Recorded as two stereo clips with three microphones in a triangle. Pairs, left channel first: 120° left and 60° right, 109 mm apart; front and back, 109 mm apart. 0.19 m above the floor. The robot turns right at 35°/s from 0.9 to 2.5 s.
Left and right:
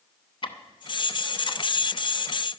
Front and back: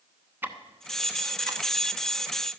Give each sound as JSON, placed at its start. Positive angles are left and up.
{"t": 0.4, "sound": "ticking", "azimuth_deg": 115, "distance_m": 0.9}